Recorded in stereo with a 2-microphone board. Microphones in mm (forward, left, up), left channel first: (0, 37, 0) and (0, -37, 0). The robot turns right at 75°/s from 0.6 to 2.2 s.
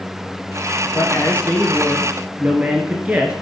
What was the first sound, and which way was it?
A man speaking, 115° left.